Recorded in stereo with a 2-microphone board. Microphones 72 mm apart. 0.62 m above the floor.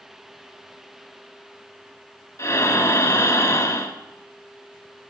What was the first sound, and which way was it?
Breathing, 45° left (ahead or behind).